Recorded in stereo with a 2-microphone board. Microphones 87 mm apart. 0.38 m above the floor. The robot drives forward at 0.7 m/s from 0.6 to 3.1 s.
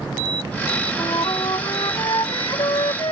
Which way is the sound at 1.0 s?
55° left (ahead or behind).